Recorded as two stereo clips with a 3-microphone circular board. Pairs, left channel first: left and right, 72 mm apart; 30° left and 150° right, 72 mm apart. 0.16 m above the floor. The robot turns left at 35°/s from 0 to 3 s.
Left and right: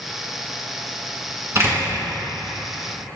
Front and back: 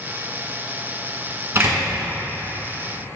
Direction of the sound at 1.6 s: 115° right.